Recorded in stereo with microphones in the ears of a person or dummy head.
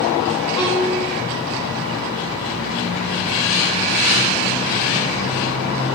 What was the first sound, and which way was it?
A violin, 15° left (ahead or behind).